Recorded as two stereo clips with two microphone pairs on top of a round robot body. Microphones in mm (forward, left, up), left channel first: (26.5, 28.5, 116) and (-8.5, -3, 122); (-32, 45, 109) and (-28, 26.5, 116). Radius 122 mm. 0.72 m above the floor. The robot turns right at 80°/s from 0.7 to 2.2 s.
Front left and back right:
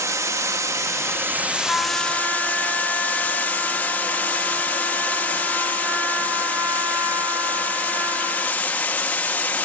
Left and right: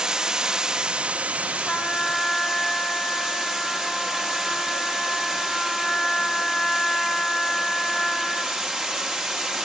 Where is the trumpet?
135° left, 2.5 m; by 8.7 s 175° left, 2.5 m.